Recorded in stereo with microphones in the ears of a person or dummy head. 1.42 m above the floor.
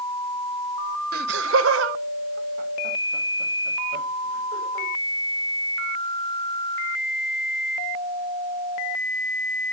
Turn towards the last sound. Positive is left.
turn(degrees=-45)  # may be behind; listen again after turning